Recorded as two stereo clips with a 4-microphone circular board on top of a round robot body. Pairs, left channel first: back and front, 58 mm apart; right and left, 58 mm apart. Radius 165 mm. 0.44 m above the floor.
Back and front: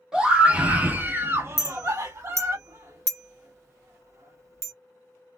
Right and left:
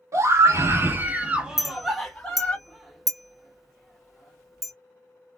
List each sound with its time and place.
0.1 s a scream: 75° left, 1.4 m; by 2.6 s 25° right, 1.3 m
1.6 s a clink: 5° left, 1.1 m